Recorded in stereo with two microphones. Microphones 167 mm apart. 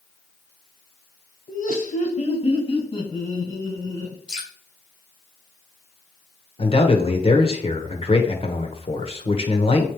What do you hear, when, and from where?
1.5 s laughter: 60° left (ahead or behind), 1.9 m; by 4.2 s 20° left (ahead or behind), 4 m
4.3 s dripping: 5° right (ahead or behind), 4.5 m
6.6 s a man speaking: 35° left (ahead or behind), 1.3 m